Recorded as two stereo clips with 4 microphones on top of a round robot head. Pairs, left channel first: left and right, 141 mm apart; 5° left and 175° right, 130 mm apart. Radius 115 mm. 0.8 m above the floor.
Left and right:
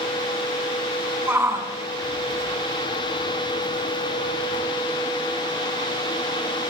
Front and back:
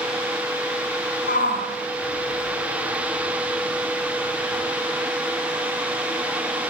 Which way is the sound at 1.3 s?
15° right.